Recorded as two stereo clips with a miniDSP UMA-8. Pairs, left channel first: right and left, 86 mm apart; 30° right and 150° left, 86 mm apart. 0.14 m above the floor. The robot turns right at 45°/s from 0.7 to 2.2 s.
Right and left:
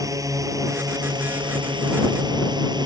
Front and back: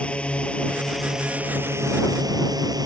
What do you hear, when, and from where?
0.0 s a drone: 45° left; by 2.9 s 115° left